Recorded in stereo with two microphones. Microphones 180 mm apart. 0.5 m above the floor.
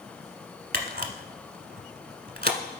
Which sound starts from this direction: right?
A camera shutter, at 0.7 s.